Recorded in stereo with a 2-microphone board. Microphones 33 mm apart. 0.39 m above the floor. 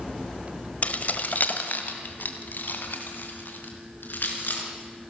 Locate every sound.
0.8 s keys jangling: 50° left (ahead or behind), 1.4 m; by 4.7 s 75° left (ahead or behind), 4.5 m